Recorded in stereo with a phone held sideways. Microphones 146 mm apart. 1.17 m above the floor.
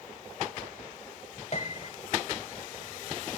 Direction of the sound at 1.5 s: 50° left (ahead or behind).